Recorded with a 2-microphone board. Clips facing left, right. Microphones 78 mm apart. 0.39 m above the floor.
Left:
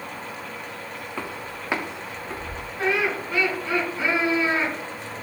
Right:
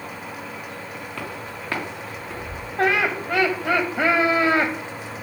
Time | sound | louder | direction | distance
1.2 | footsteps | left 1 dB | 15° left (ahead or behind) | 4.5 m
2.8 | laughter | right 3 dB | 60° right (ahead or behind) | 2.5 m